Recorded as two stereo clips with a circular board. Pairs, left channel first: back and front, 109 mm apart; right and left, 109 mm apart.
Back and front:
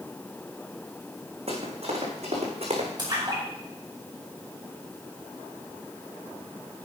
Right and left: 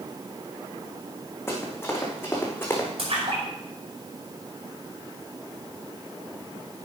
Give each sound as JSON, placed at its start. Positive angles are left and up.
{"t": 1.5, "sound": "running footsteps", "azimuth_deg": -25, "distance_m": 5.5}
{"t": 3.0, "sound": "a splash", "azimuth_deg": 55, "distance_m": 5.5}